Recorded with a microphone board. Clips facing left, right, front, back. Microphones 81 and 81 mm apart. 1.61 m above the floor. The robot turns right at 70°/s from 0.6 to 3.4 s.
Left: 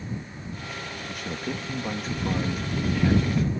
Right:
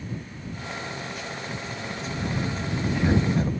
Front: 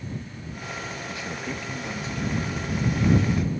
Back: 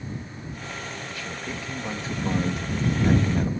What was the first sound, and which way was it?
A man speaking, 60° left.